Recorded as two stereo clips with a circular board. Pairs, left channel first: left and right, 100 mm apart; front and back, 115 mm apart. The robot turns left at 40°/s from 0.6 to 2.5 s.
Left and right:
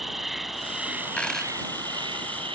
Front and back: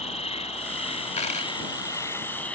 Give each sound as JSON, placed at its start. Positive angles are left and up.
{"t": 0.0, "sound": "an insect", "azimuth_deg": 0}
{"t": 1.2, "sound": "a dropped coin", "azimuth_deg": 15}